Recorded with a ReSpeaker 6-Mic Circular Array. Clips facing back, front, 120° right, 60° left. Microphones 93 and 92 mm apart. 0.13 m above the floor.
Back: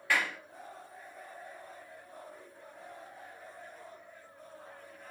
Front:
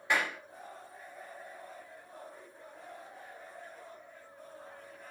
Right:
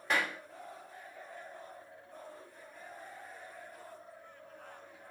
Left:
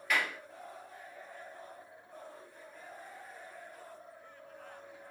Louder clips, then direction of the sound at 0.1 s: Even, right 1 dB; 65° right.